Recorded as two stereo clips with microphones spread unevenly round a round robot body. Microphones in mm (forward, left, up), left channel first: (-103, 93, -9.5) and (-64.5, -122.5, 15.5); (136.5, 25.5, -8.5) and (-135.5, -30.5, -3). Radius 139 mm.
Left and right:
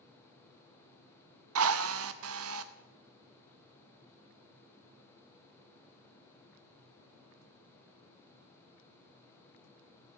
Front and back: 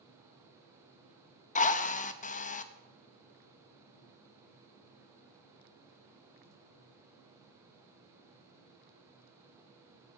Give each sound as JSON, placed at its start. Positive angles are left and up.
{"t": 1.6, "sound": "a drill", "azimuth_deg": -50, "distance_m": 0.8}